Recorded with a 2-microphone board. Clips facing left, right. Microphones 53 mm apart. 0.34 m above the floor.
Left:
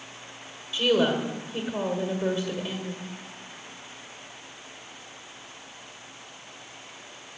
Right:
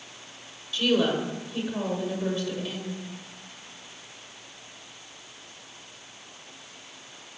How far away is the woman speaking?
About 1.6 m.